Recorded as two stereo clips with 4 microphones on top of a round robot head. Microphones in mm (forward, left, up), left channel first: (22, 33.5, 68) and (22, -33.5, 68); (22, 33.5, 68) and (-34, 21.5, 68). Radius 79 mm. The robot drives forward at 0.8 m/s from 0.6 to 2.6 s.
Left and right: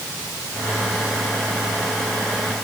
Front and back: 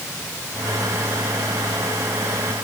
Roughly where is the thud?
I don't hear a thud.